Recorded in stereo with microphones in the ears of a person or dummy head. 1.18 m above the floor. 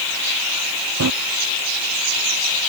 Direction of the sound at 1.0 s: 70° right (ahead or behind).